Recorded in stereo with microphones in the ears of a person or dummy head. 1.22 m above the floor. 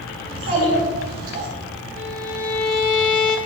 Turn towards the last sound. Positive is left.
turn(degrees=65)  # may be behind; listen again after turning